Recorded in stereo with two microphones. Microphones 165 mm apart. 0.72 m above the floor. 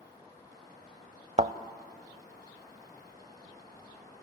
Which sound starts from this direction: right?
A thud, at 1.4 s.